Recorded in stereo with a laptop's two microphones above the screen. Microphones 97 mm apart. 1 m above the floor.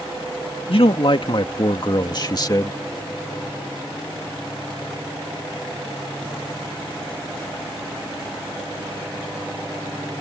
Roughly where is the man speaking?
Left.